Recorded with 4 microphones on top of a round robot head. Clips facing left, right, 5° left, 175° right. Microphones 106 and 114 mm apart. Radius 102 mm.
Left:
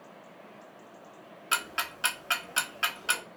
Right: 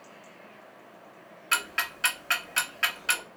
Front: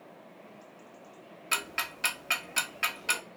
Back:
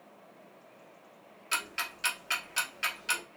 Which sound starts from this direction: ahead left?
Ticking, at 1.5 s.